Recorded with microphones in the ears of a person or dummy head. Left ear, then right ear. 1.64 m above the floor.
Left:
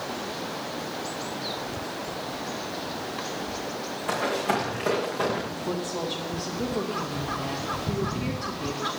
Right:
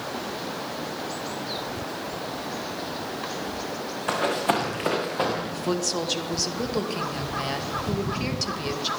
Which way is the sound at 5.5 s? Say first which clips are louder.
Right 4 dB; 60° right (ahead or behind).